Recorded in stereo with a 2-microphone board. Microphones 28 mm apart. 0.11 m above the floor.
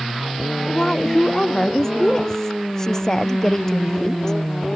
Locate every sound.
0.7 s a woman speaking: 20° left (ahead or behind)